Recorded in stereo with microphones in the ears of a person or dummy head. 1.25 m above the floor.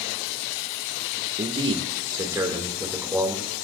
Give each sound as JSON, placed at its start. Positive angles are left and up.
{"t": 1.4, "sound": "a man speaking", "side_deg": -30, "distance_m": 1.3}